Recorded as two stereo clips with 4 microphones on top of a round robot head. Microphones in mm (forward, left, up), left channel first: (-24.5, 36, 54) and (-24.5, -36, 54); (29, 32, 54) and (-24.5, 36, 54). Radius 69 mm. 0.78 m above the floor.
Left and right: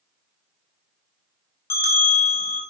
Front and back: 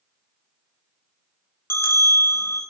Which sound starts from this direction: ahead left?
A bell, at 1.7 s.